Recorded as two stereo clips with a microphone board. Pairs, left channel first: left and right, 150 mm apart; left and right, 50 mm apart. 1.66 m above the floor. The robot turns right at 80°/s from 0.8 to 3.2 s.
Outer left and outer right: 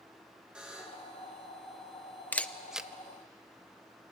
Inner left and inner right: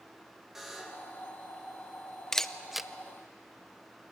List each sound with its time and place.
0.6 s a buzzer: 5° right (ahead or behind), 2.5 m; by 1.1 s 20° left (ahead or behind), 2.5 m
2.3 s a camera shutter: 10° left (ahead or behind), 0.6 m; by 2.9 s 10° right (ahead or behind), 0.6 m